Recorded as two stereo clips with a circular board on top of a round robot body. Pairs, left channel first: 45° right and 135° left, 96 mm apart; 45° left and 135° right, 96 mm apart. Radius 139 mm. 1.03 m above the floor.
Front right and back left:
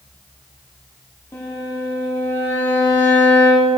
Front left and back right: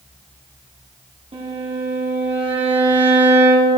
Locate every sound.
1.3 s a violin: 110° right, 2.5 m